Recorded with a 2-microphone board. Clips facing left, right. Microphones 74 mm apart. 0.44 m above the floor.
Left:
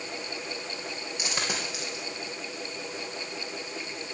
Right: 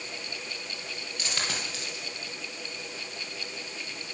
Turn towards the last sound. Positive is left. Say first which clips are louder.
# left 2 dB
turn(degrees=15)  # may be behind; listen again after turning